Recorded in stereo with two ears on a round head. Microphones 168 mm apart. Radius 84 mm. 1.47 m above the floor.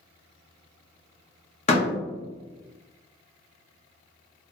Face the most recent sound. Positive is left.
turn(degrees=35)  # may be behind; listen again after turning